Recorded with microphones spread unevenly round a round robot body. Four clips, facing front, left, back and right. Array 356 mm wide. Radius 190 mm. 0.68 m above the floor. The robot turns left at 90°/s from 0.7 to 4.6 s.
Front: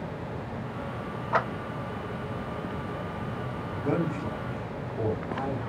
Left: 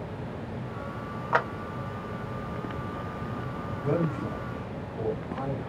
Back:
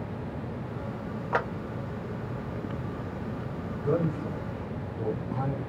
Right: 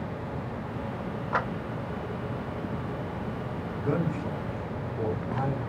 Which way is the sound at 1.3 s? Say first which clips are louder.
Left 3 dB, front 2 dB; 155° left.